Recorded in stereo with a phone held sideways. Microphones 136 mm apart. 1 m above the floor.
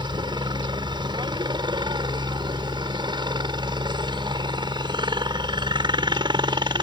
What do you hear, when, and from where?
0.0 s a helicopter: 35° right (ahead or behind)